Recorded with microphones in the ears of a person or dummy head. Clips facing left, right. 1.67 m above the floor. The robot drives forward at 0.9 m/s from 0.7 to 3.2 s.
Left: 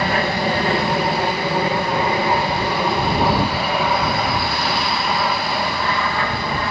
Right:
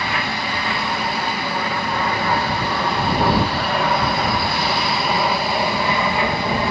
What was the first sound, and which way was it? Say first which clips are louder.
An aircraft: left 6 dB; 35° left (ahead or behind).